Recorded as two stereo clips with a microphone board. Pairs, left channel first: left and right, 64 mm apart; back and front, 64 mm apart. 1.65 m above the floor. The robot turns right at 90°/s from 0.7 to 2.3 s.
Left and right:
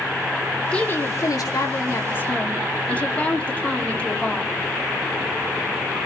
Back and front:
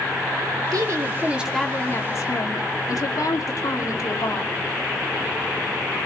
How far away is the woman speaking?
About 3.5 m.